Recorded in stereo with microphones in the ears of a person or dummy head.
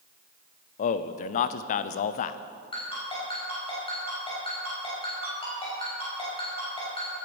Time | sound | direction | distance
0.8 | a man speaking | 40° left (ahead or behind) | 0.5 m
2.7 | a ringtone | 25° left (ahead or behind) | 5.5 m